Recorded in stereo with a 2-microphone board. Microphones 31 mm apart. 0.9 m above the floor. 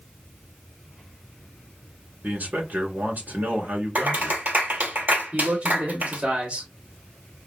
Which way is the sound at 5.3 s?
60° right (ahead or behind).